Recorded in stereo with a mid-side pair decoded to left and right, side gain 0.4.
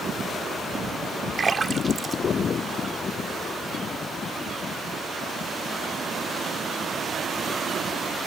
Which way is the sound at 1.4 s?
40° right.